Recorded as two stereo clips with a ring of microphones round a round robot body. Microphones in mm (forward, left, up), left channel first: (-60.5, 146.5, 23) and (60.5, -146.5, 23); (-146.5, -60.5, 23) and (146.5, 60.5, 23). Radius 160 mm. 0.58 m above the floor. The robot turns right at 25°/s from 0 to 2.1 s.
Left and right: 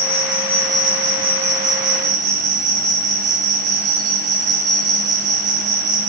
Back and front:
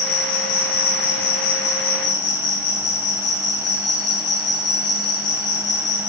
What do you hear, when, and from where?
0.0 s an insect: 155° right, 2.5 m; by 6.1 s 100° right, 2.5 m